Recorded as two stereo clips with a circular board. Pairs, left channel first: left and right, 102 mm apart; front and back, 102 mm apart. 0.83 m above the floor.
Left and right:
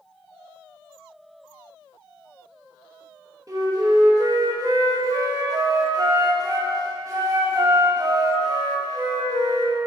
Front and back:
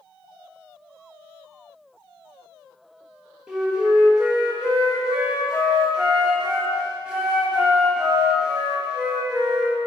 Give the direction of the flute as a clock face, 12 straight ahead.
3 o'clock.